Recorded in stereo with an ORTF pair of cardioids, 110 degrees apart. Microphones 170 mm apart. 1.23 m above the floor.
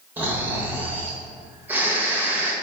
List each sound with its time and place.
0.2 s snoring: 10° right, 0.9 m